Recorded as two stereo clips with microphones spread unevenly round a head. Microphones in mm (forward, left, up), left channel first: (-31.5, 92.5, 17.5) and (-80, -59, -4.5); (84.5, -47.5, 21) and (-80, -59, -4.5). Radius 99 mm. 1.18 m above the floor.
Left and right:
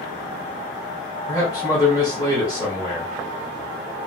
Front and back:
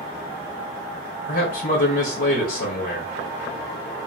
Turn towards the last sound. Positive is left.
turn(degrees=-5)